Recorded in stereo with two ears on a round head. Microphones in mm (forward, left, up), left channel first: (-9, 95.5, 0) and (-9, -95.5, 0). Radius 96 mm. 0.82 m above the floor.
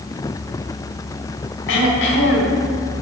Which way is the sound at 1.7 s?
65° left (ahead or behind).